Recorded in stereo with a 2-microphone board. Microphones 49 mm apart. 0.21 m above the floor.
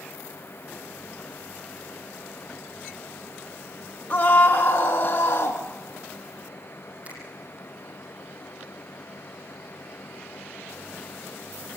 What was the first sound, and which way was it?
A scream, 45° left (ahead or behind).